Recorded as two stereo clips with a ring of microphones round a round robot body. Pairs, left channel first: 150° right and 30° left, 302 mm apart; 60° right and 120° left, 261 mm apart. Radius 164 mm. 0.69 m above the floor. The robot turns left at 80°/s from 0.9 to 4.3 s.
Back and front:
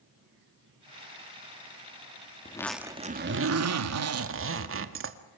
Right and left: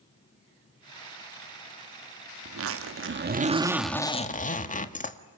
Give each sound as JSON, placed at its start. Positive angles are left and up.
{"t": 2.5, "sound": "a zipper", "azimuth_deg": 140, "distance_m": 1.7}